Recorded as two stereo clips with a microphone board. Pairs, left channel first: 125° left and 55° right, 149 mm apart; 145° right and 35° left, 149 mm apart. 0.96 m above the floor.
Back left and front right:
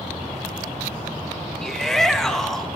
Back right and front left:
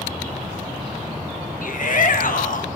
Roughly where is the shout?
Behind right.